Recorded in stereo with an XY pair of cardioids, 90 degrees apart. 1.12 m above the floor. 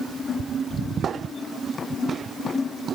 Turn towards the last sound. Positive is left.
No sound to turn to.